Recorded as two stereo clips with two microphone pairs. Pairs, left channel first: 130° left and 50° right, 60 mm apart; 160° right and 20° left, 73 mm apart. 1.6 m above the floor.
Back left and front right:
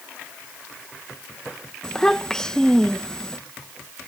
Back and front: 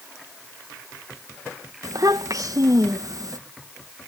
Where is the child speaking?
50° left.